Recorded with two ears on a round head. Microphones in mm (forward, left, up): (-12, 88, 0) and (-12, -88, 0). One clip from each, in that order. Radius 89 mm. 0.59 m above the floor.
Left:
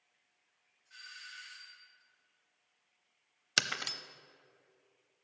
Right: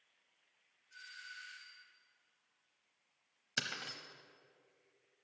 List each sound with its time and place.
0.9 s a doorbell: 70° left (ahead or behind), 3.5 m
3.6 s breaking glass: 35° left (ahead or behind), 0.7 m